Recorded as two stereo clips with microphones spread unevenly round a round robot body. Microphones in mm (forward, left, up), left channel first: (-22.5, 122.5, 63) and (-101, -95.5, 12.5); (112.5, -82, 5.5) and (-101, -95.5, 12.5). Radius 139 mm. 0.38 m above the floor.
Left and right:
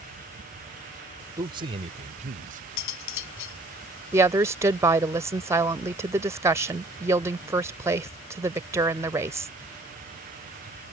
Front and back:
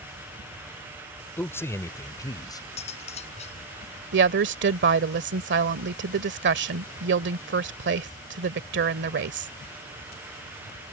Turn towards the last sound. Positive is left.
turn(degrees=-175)